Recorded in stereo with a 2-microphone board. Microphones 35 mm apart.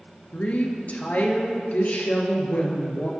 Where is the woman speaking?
45° left (ahead or behind), 3.5 m.